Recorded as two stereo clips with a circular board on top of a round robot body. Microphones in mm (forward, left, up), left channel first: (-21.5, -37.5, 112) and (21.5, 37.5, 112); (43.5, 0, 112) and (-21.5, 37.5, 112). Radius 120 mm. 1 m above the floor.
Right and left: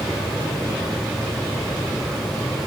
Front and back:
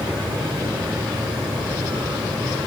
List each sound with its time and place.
Only background noise.